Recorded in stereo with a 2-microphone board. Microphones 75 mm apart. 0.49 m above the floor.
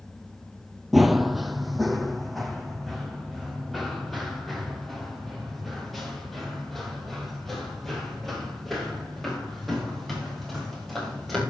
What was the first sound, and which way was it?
Running footsteps, 5° right (ahead or behind).